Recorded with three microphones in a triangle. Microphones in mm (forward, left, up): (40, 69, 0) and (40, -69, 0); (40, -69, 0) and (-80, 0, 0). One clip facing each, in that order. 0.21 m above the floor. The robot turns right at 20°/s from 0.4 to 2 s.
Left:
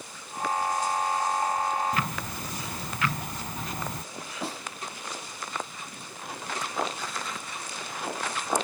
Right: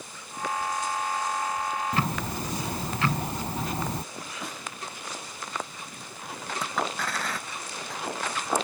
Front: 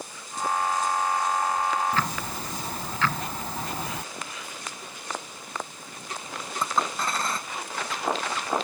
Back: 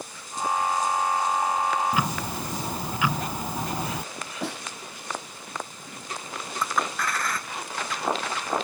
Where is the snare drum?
150° left.